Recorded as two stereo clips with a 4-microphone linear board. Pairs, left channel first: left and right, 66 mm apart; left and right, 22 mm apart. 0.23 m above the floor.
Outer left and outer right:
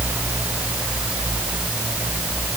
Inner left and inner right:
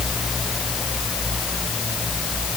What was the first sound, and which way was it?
Only background noise.